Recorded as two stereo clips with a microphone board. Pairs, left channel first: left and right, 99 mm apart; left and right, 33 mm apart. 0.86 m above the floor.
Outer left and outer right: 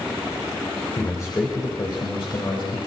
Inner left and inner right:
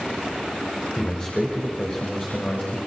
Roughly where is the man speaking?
Left.